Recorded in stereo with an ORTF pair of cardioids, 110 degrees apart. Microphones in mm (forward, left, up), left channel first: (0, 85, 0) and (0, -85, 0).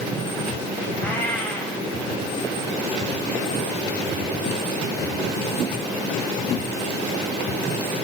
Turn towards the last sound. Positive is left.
turn(degrees=10)